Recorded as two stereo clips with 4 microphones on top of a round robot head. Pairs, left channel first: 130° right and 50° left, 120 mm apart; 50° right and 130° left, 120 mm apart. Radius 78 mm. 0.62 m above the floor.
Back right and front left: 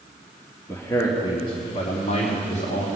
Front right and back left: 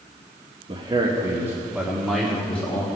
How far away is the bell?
I don't hear a bell.